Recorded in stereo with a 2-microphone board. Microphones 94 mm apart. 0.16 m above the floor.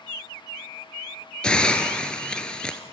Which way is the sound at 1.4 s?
10° left (ahead or behind).